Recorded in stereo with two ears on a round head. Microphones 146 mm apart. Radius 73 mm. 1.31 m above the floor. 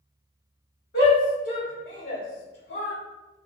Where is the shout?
60° left (ahead or behind), 1.9 m; by 3.0 s 85° left, 2.5 m.